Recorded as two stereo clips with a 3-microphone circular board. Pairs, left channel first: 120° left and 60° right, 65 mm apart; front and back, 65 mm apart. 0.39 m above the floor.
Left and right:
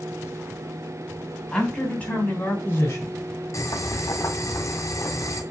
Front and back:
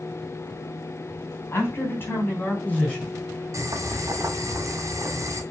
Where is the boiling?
150° left, 2 m.